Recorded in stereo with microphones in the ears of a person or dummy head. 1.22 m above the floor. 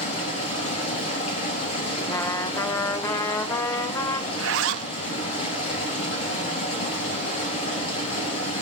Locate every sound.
0.0 s running water: 40° left (ahead or behind), 5.5 m
2.1 s a trumpet: 10° left (ahead or behind), 0.6 m
4.3 s a zipper: 80° right, 0.7 m